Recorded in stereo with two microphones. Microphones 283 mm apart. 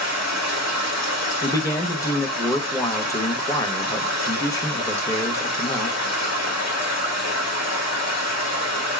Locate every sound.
0.0 s running water: 65° left (ahead or behind), 2 m
1.4 s a man speaking: 10° left (ahead or behind), 0.9 m